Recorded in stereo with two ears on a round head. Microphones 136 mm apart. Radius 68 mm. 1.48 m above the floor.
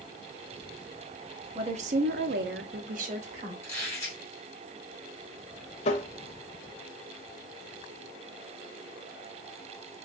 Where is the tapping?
40° left (ahead or behind), 0.5 m.